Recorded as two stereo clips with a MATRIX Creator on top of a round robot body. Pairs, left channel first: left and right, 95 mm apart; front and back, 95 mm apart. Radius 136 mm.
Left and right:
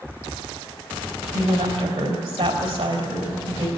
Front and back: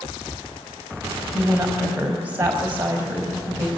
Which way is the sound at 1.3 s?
110° right.